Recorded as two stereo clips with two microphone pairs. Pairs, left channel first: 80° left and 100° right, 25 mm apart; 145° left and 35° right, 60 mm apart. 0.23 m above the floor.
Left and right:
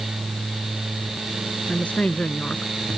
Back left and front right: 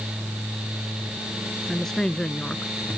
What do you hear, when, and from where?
1.7 s a woman speaking: 65° left; by 3.0 s 80° left